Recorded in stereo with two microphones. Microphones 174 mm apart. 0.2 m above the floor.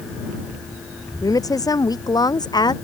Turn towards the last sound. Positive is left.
turn(degrees=25)  # may be behind; listen again after turning